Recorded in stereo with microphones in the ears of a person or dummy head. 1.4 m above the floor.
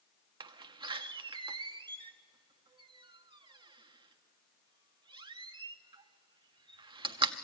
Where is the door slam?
30° right (ahead or behind), 0.6 m.